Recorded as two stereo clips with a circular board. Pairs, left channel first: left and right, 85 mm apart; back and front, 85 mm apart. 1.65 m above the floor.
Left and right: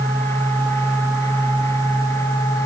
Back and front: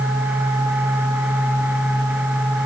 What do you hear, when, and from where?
Only background noise.